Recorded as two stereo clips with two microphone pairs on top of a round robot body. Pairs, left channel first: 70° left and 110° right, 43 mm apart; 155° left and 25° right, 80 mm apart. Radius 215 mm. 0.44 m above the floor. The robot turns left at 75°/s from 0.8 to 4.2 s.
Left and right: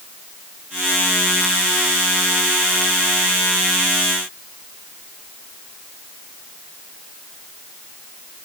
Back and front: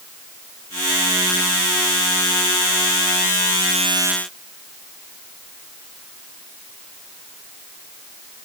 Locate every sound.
Only background noise.